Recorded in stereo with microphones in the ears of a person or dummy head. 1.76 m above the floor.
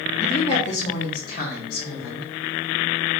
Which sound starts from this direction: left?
A woman speaking, at 0.2 s.